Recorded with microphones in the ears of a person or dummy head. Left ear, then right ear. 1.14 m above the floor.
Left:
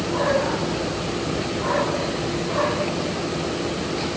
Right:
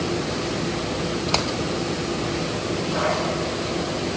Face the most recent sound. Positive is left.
No sound to turn to.